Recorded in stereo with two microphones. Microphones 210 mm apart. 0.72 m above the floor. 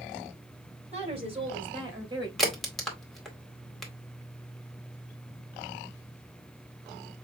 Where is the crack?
Centre (ahead or behind), 2 m.